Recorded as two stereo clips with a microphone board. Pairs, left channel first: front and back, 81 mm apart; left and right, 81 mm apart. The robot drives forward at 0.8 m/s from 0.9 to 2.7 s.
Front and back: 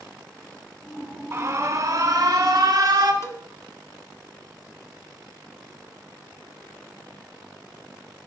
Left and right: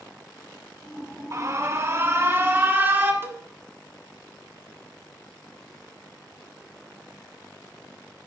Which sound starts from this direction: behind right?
An alarm, at 1.3 s.